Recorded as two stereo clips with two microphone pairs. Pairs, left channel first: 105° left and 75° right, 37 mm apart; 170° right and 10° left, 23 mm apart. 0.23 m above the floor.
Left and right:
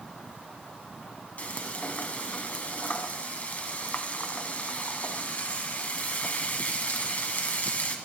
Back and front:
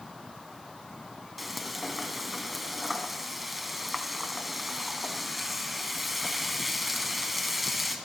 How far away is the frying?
About 2.0 m.